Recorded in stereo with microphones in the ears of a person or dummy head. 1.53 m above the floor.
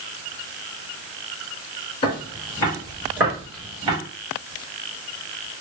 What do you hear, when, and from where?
2.0 s footsteps: 25° left (ahead or behind), 1.6 m; by 4.0 s 20° right (ahead or behind), 1.8 m